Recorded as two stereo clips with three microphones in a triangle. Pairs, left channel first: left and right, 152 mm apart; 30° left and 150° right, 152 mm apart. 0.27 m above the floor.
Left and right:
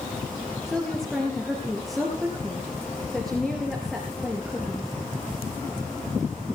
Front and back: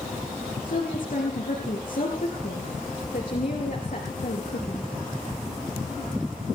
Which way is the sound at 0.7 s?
Straight ahead.